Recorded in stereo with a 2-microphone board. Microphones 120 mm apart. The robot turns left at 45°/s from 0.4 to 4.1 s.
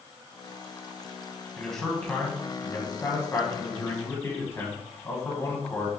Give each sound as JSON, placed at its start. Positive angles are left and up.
{"t": 1.6, "sound": "a man speaking", "side_deg": 0, "distance_m": 1.8}